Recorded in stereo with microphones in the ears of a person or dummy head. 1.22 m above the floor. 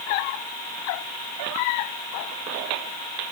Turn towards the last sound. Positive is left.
No sound to turn to.